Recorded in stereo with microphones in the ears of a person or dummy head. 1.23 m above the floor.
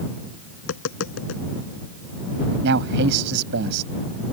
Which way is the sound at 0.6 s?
75° left (ahead or behind).